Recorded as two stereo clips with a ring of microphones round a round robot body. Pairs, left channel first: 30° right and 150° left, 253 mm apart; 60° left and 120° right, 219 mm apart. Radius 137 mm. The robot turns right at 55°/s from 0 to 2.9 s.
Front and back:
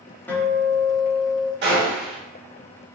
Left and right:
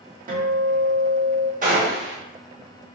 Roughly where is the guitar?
Right.